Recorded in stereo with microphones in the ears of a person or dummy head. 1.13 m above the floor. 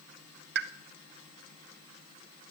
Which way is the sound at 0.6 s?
50° right (ahead or behind).